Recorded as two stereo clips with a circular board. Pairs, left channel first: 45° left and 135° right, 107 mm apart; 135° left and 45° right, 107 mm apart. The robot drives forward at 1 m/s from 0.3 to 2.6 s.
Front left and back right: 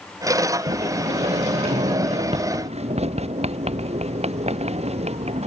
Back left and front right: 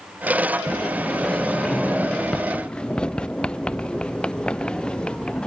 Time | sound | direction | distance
0.7 | a sliding door | 140° right | ?